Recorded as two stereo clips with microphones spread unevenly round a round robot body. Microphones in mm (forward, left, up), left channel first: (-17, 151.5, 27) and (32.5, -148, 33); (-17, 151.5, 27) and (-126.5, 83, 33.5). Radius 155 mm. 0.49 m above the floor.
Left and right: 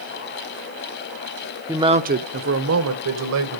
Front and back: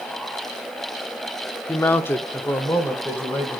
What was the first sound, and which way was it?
A man speaking, 5° right.